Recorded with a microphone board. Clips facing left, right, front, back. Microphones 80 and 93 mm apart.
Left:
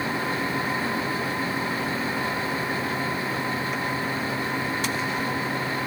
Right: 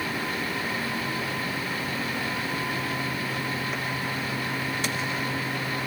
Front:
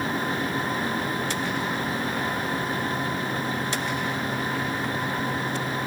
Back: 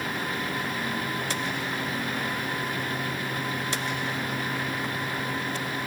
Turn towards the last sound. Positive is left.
No sound to turn to.